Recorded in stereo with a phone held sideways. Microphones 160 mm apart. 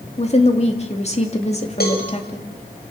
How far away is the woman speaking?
About 2.5 m.